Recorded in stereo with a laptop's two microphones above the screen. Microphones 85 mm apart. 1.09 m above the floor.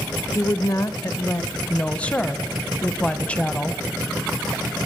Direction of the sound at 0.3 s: 35° left (ahead or behind).